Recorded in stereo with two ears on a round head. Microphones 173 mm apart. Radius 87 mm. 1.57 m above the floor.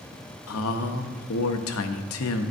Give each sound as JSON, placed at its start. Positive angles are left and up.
{"t": 0.5, "sound": "a man speaking", "side_deg": 85, "distance_m": 0.6}